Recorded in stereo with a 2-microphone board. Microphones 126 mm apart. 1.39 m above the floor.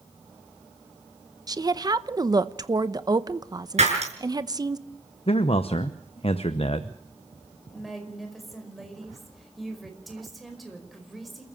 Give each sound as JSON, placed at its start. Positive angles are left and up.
{"t": 1.5, "sound": "a woman speaking", "side_deg": -35, "distance_m": 0.9}
{"t": 3.8, "sound": "breaking glass", "side_deg": -70, "distance_m": 6.5}
{"t": 5.3, "sound": "a man speaking", "side_deg": 55, "distance_m": 0.9}
{"t": 7.7, "sound": "a woman speaking", "side_deg": 0, "distance_m": 5.0}